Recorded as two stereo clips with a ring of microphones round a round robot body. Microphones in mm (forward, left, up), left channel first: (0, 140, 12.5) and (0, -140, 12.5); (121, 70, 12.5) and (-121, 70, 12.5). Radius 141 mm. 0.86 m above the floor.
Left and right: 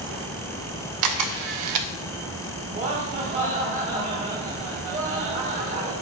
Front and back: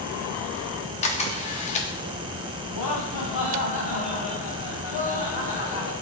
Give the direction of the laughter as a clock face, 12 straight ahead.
1 o'clock.